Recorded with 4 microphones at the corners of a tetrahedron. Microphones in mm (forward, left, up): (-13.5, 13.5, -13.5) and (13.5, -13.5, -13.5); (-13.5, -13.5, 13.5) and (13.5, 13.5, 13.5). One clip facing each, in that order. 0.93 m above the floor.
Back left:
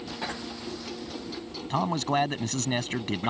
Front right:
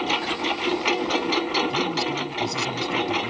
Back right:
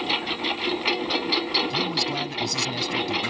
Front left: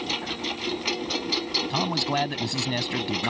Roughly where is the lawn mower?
Ahead right.